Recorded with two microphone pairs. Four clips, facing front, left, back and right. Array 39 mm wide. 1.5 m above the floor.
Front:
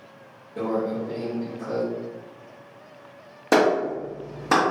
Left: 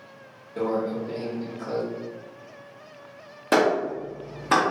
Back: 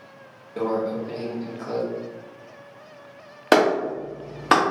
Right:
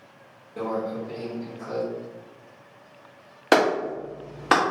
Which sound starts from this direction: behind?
A microwave, at 0.6 s.